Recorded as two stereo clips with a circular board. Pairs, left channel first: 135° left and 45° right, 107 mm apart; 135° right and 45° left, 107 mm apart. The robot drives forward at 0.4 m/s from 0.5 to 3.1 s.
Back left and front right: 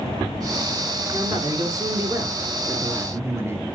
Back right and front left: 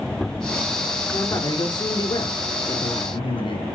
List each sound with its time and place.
1.1 s a man speaking: 85° right, 2.5 m; by 3.6 s 105° right, 2.5 m